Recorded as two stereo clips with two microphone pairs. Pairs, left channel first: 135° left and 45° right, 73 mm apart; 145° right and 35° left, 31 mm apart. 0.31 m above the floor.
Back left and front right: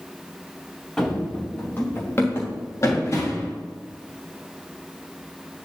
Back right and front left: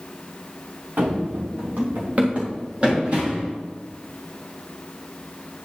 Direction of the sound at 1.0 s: 60° left.